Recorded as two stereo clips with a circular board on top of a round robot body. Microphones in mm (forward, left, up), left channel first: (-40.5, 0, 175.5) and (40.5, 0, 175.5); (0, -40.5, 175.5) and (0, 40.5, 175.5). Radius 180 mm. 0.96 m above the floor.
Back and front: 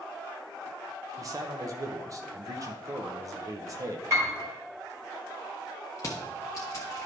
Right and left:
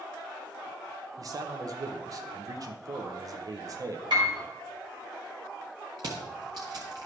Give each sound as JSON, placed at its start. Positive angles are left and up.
{"t": 1.2, "sound": "a man speaking", "azimuth_deg": 50, "distance_m": 0.7}
{"t": 4.1, "sound": "a piano", "azimuth_deg": 55, "distance_m": 2.0}
{"t": 6.0, "sound": "crushing", "azimuth_deg": 125, "distance_m": 0.6}